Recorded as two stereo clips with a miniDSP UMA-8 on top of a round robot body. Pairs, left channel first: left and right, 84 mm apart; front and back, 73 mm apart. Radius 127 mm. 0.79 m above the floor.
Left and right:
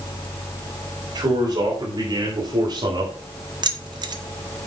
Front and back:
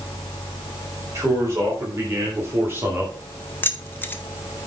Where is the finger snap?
I don't hear a finger snap.